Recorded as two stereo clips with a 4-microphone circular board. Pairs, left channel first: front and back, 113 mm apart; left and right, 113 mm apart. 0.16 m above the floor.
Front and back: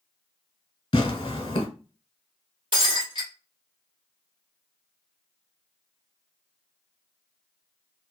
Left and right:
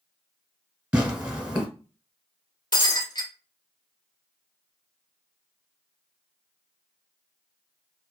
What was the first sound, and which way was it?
Tearing paper, 15° right.